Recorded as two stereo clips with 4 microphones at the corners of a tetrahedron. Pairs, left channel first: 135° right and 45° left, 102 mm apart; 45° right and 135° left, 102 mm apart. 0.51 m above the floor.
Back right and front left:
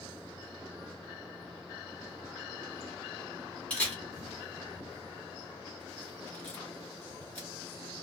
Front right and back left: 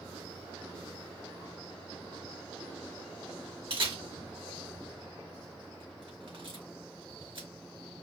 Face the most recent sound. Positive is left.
turn(degrees=150)